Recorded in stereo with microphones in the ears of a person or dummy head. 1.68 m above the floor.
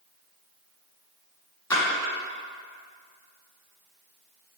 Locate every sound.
1.7 s a splash: 10° left (ahead or behind), 1.9 m